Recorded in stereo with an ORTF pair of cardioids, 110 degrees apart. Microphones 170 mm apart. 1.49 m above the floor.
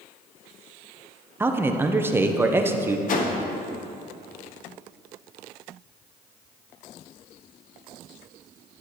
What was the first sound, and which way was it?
A man speaking, 15° right.